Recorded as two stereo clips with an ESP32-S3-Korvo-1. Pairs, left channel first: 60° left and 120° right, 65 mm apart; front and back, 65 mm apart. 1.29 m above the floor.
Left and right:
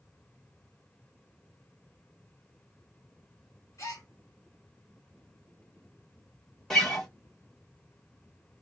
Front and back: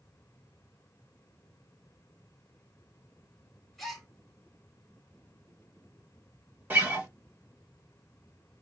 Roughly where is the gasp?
Left.